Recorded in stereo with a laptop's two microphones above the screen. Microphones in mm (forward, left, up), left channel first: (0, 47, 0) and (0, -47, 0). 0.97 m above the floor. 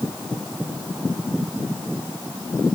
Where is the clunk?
No clunk in this recording.